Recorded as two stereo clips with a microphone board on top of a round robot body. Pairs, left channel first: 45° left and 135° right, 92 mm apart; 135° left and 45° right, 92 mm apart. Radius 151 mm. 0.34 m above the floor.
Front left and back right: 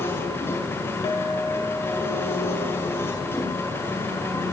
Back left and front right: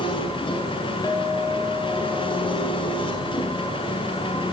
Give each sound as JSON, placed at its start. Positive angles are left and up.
{"t": 0.0, "sound": "an engine running", "azimuth_deg": 110, "distance_m": 6.5}
{"t": 1.0, "sound": "a clink", "azimuth_deg": 75, "distance_m": 7.5}